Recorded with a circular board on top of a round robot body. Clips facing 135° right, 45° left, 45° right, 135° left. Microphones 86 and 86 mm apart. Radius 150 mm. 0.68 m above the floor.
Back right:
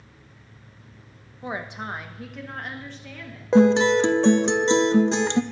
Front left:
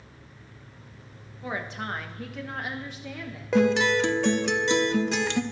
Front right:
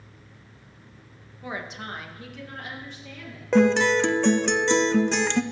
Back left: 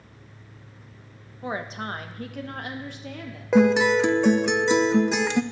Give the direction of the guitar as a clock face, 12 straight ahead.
5 o'clock.